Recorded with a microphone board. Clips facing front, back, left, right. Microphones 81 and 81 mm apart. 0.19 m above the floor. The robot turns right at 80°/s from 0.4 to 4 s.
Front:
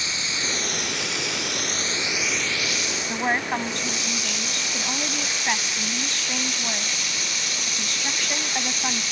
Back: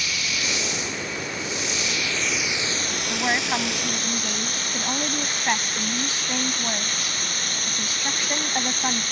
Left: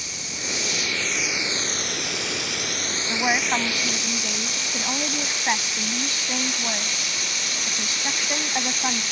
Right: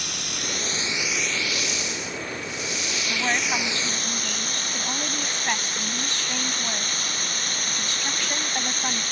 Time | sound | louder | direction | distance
0.0 | running water | back 1 dB, right 2 dB | 65° right | ?
3.1 | a woman speaking | even, left 3 dB | 55° left | ?